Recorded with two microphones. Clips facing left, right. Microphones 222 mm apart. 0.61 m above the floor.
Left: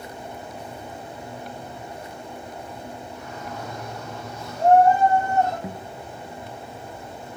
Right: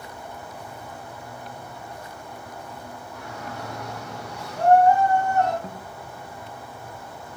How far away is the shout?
About 8.5 m.